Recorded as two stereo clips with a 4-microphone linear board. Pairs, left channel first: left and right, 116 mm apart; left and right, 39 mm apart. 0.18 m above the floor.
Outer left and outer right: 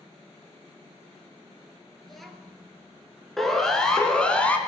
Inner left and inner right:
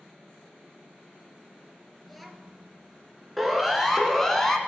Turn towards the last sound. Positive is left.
turn(degrees=10)  # may be behind; listen again after turning